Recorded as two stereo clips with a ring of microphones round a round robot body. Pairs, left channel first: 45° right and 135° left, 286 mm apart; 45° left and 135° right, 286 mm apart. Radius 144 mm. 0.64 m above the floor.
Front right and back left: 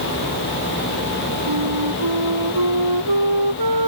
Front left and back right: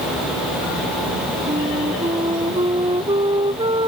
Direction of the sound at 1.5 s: 150° left.